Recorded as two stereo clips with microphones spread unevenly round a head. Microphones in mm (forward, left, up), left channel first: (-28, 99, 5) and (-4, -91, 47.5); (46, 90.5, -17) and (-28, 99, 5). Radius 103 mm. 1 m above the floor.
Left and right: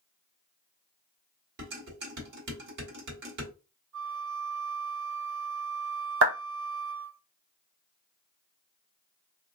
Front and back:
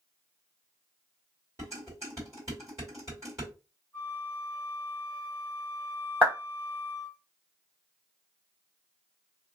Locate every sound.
1.6 s dishes clattering: 115° right, 1.7 m
3.9 s a flute: 100° right, 1.8 m
6.2 s a clap: 100° right, 1.0 m